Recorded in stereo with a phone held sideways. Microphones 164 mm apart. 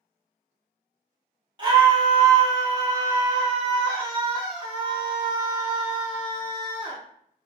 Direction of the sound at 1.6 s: 30° right (ahead or behind).